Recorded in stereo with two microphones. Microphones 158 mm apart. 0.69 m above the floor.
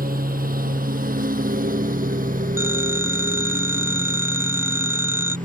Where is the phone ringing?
15° right (ahead or behind).